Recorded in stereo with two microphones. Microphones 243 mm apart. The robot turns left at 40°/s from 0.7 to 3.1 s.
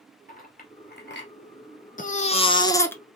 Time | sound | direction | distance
0.3 | a clink | 35° left (ahead or behind) | 1.9 m
2.0 | a baby crying | 50° left | 0.8 m